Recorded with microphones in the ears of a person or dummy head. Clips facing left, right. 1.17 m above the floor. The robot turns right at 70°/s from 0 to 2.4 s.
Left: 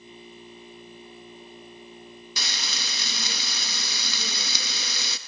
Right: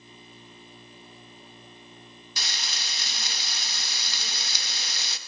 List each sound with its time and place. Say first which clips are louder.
2.4 s frying: left 2 dB; 60° left (ahead or behind), 0.7 m